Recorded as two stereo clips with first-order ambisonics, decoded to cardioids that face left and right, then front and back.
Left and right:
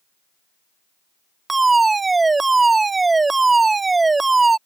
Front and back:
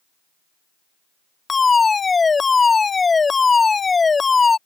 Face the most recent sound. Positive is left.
turn(degrees=-40)